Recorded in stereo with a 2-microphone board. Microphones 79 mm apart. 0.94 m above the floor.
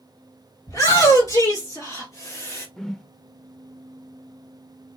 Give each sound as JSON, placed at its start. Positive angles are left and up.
{"t": 0.7, "sound": "a shout", "side_deg": 45, "distance_m": 3.5}
{"t": 2.8, "sound": "a whoosh", "side_deg": 5, "distance_m": 0.6}